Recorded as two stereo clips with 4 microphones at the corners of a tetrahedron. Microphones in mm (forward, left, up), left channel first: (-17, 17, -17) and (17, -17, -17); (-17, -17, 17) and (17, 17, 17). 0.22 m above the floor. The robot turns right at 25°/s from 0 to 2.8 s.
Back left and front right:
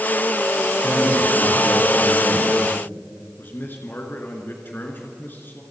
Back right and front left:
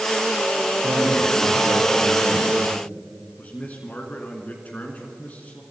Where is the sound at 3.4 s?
170° left, 2.5 m.